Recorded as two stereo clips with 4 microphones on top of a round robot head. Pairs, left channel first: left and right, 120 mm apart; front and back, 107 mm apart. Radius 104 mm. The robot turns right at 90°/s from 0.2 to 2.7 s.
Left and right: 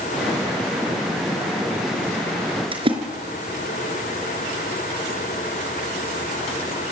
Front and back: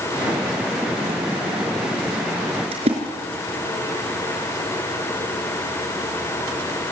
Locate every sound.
2.7 s a splash: 135° right, 4.5 m